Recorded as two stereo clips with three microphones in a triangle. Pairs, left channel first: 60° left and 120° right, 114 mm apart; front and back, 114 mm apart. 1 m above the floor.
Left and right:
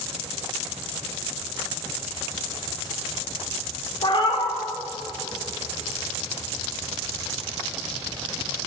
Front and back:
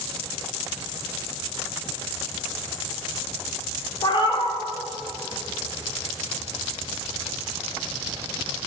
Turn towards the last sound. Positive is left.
turn(degrees=30)